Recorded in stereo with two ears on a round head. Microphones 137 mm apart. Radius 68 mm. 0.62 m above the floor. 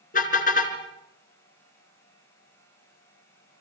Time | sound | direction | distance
0.1 | a car horn | 60° left (ahead or behind) | 3 m